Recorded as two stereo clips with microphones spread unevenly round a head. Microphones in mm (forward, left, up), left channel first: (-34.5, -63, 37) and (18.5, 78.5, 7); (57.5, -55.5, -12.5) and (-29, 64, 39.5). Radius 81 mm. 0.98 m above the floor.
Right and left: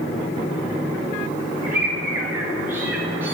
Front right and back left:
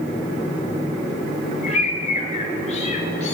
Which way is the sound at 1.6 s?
10° right.